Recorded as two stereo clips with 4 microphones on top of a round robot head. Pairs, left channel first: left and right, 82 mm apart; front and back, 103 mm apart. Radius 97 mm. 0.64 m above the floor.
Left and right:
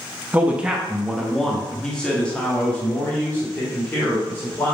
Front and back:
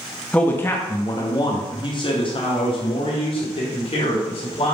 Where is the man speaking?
55° right, 0.9 m; by 4.7 s 25° left, 2.5 m.